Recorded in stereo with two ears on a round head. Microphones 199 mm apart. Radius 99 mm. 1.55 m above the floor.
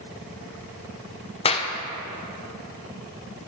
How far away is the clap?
About 0.5 m.